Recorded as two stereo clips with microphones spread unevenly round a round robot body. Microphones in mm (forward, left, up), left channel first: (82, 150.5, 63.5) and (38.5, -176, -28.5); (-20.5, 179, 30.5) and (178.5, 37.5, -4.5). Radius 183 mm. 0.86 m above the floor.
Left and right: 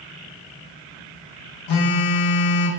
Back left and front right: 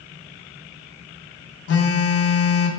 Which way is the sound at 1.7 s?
110° left.